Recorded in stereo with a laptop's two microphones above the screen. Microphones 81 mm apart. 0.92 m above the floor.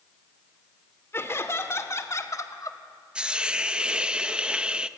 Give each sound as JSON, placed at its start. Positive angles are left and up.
{"t": 1.1, "sound": "laughter", "side_deg": 30, "distance_m": 2.5}
{"t": 3.1, "sound": "a hiss", "side_deg": -15, "distance_m": 0.8}